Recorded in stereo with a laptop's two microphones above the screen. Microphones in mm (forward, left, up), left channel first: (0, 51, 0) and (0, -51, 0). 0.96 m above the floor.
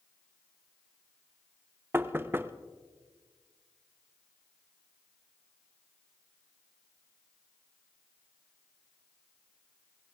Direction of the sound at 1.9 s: 25° right (ahead or behind).